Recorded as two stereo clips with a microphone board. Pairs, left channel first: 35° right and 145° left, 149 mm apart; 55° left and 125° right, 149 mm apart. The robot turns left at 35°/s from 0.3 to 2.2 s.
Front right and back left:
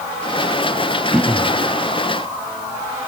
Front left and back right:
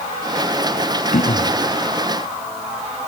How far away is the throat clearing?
About 1.3 m.